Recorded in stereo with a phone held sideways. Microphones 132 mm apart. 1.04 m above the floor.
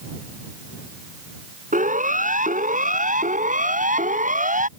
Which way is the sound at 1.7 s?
80° right.